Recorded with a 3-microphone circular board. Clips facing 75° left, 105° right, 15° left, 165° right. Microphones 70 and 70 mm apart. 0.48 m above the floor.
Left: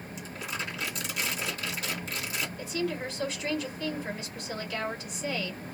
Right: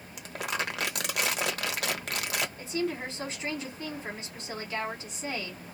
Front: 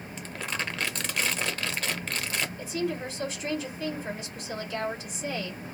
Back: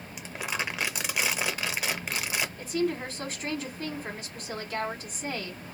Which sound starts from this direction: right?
Crumpling, at 0.2 s.